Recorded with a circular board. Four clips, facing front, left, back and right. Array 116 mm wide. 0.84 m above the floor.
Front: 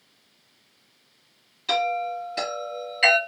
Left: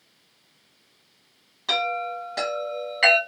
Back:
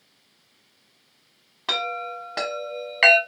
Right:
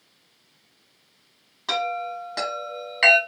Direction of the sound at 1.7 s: 170° right.